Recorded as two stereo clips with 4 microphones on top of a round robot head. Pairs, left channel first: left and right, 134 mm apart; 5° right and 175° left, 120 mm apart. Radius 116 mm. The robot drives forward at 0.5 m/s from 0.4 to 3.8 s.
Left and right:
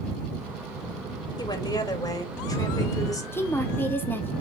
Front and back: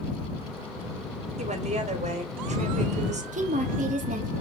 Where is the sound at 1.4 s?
150° left, 3.5 m; by 3.2 s 155° left, 4.5 m.